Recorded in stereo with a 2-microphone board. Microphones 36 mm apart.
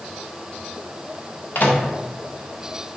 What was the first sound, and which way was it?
A microwave, 55° left (ahead or behind).